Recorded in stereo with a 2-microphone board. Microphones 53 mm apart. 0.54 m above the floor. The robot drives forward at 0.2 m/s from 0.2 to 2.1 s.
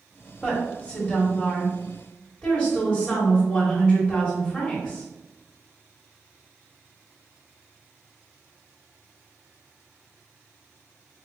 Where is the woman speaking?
20° left (ahead or behind), 1.4 m.